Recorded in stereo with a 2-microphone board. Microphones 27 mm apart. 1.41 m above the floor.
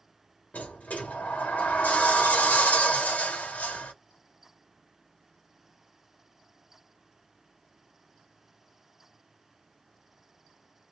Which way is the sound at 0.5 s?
80° left.